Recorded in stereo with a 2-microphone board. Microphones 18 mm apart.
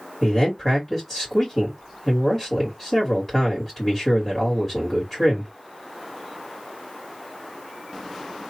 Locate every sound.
0.2 s a man speaking: 20° left (ahead or behind), 1.7 m